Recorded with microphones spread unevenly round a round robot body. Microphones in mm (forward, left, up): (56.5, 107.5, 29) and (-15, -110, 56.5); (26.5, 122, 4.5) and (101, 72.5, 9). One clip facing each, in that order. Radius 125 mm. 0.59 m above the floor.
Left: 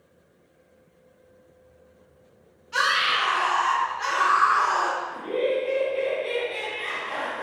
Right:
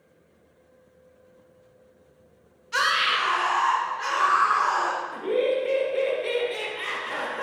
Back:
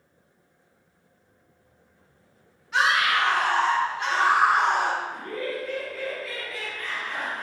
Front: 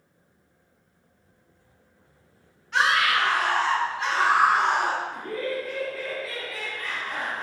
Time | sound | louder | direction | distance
2.7 | a scream | even, even | 140° right | 0.7 m
5.1 | laughter | right 2 dB, front 2 dB | 100° right | 0.6 m